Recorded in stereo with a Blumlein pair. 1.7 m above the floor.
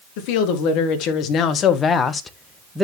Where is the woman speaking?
45° left, 2.5 m; by 2.8 s 10° right, 1.2 m.